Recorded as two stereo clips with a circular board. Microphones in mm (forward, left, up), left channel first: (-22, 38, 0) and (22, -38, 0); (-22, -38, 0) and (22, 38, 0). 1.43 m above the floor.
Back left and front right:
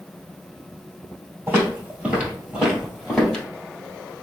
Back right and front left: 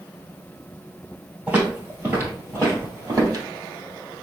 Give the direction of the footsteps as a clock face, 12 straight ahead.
12 o'clock.